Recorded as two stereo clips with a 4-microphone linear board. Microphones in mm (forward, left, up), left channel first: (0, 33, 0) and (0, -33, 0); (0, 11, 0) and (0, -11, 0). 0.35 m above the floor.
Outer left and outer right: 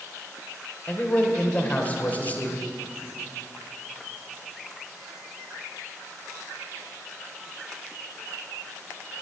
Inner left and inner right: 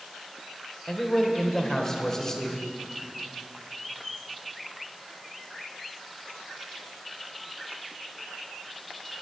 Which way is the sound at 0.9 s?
25° left (ahead or behind).